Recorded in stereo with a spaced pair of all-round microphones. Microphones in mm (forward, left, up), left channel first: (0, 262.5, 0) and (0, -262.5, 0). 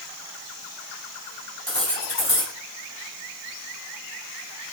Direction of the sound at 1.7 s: 25° right (ahead or behind).